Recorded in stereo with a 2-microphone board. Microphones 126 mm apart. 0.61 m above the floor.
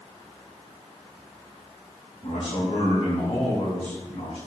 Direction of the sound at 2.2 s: 75° left (ahead or behind).